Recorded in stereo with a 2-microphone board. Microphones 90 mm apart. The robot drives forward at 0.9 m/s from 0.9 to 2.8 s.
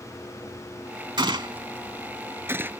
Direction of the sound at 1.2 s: 55° right (ahead or behind).